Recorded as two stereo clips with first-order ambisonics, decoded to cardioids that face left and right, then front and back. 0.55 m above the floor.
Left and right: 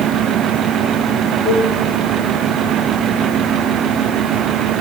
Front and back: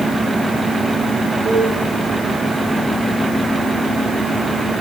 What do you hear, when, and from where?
1.4 s a cowbell: 150° right, 4 m